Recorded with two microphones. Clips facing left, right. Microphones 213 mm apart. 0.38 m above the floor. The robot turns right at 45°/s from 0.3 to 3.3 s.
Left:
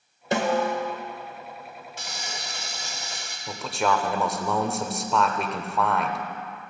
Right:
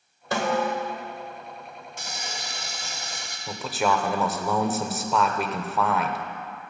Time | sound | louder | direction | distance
0.3 | a snare drum | left 2 dB | 25° left (ahead or behind) | 1.5 m
2.0 | frying | right 2 dB | 120° right | 2.5 m
3.5 | a man speaking | even | centre (ahead or behind) | 0.9 m